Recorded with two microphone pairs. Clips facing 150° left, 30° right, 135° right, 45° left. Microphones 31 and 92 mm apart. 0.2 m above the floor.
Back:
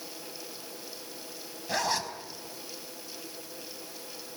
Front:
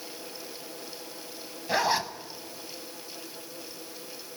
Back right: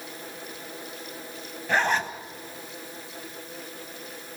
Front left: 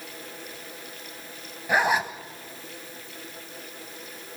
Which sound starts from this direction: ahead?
A zipper, at 1.7 s.